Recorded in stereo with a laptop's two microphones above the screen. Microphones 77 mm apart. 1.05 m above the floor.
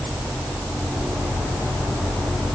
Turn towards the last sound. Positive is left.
No sound to turn to.